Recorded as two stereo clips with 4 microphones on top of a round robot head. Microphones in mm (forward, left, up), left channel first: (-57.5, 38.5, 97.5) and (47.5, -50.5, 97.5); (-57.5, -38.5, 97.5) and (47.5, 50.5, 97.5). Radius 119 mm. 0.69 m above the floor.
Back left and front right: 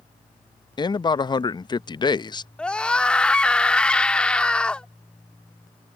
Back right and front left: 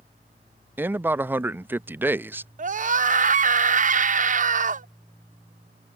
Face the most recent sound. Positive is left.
turn(degrees=55)